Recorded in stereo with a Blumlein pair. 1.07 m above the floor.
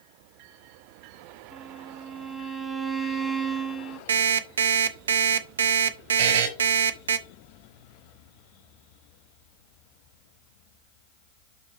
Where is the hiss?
I don't hear a hiss.